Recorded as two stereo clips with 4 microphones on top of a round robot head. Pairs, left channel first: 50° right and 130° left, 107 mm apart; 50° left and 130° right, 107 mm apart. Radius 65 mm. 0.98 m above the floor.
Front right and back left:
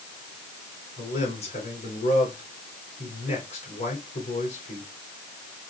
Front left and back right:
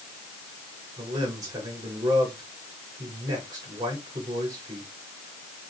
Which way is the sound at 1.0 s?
75° right.